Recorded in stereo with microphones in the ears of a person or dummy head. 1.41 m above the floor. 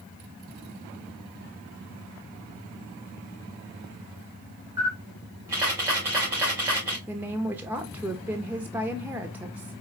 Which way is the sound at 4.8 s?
10° right (ahead or behind).